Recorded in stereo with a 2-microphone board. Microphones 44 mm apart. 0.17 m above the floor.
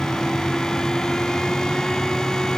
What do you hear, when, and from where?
Only background noise.